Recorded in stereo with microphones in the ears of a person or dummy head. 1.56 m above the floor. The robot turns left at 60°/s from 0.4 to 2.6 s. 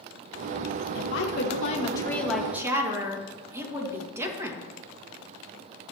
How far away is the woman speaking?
About 1.9 m.